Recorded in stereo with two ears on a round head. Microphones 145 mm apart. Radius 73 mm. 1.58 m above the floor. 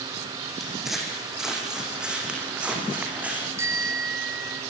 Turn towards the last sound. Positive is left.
turn(degrees=-15)  # may be behind; listen again after turning